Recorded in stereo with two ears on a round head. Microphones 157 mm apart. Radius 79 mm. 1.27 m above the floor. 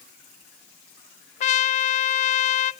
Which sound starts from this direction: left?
A trumpet, at 1.4 s.